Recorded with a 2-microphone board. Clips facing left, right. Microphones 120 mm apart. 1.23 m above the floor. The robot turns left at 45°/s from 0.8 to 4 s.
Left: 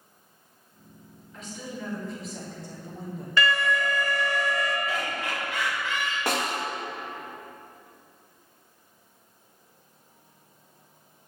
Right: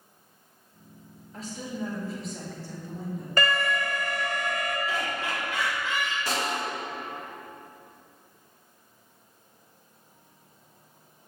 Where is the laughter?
10° right (ahead or behind), 1.4 m.